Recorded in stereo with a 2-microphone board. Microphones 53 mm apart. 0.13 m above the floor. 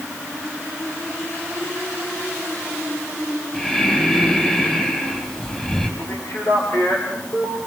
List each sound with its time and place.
3.5 s breathing: 15° left (ahead or behind), 5 m
6.0 s a man speaking: 55° left (ahead or behind), 3.5 m